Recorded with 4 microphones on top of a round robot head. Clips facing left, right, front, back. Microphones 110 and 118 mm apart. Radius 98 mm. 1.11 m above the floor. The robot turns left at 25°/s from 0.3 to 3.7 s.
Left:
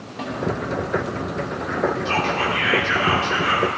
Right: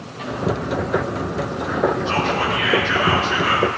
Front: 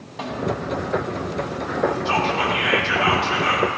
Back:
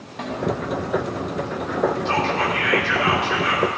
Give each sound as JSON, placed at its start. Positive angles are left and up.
{"t": 0.2, "sound": "a snare drum", "azimuth_deg": 85, "distance_m": 4.0}
{"t": 2.0, "sound": "whispering", "azimuth_deg": 80, "distance_m": 4.0}